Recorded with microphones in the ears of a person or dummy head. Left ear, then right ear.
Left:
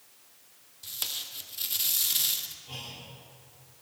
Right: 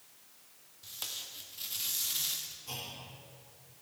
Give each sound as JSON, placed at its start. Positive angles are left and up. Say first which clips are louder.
{"t": 0.8, "sound": "tape being pulled", "louder": "left 6 dB", "side_deg": 15, "distance_m": 0.8}
{"t": 2.7, "sound": "a clunk", "louder": "left 1 dB", "side_deg": -60, "distance_m": 3.5}